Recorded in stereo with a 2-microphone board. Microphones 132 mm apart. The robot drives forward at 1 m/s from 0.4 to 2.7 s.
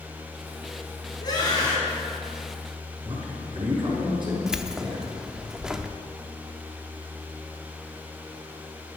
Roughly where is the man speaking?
Right.